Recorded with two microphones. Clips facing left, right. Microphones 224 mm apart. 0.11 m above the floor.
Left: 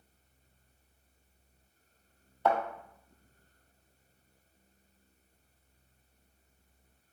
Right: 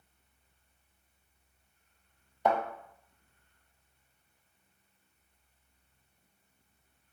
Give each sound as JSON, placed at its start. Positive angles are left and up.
{"t": 2.5, "sound": "a thud", "side_deg": -15, "distance_m": 0.7}